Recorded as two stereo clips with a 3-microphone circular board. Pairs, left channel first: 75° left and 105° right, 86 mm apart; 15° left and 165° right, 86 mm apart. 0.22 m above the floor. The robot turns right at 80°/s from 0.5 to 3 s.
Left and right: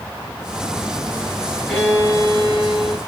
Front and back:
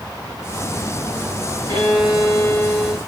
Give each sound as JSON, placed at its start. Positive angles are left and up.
{"t": 1.7, "sound": "a violin", "azimuth_deg": 0, "distance_m": 3.0}